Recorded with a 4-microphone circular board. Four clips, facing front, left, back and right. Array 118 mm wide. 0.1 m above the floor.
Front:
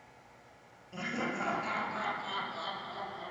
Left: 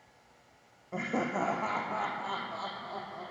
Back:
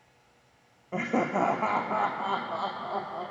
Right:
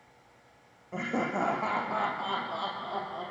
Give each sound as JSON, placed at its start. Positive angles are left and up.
{"t": 0.9, "sound": "laughter", "azimuth_deg": 180, "distance_m": 3.0}